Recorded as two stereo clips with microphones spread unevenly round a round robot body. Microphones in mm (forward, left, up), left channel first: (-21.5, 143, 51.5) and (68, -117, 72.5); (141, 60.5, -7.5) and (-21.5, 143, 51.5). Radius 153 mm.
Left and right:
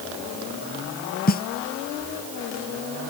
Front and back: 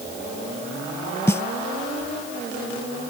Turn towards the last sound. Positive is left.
turn(degrees=50)